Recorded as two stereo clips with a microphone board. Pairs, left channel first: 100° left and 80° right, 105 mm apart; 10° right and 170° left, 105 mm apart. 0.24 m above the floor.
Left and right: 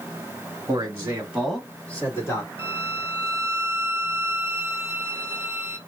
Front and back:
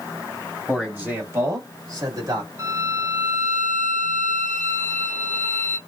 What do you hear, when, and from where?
0.7 s a man speaking: 115° right, 1.5 m; by 2.5 s 140° left, 1.6 m
2.6 s a violin: 125° left, 0.7 m